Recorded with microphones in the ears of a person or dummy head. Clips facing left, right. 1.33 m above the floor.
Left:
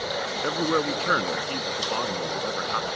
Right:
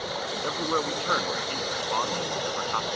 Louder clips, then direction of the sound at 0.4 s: Left 5 dB; 20° left (ahead or behind).